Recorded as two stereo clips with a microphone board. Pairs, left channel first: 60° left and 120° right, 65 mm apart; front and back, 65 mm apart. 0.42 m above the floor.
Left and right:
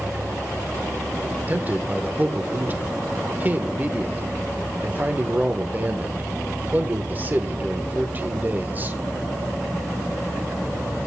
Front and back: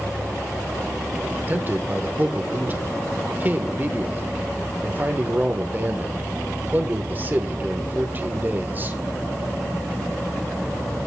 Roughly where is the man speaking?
Behind right.